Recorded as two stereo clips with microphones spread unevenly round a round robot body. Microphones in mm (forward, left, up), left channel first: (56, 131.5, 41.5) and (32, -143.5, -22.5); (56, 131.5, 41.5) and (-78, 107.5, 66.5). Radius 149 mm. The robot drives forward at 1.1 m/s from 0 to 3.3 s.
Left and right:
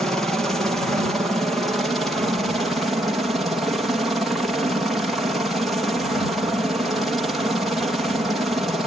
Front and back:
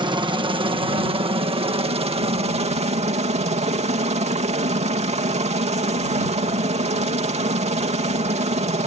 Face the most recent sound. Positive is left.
turn(degrees=-170)